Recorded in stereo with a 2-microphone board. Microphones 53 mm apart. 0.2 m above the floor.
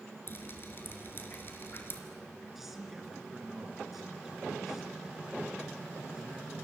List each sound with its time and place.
0.3 s dripping: 45° left (ahead or behind), 3 m
2.5 s a man speaking: 5° right (ahead or behind), 3.5 m